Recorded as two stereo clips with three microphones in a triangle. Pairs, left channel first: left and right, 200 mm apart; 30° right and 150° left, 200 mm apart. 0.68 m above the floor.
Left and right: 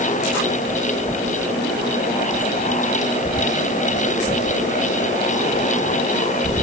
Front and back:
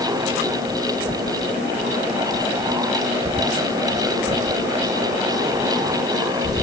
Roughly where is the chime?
I don't hear a chime.